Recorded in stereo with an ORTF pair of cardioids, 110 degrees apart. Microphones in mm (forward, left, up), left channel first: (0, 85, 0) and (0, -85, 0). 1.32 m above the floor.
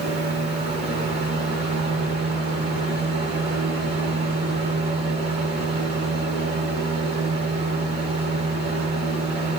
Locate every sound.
0.0 s a fan: 70° right, 3 m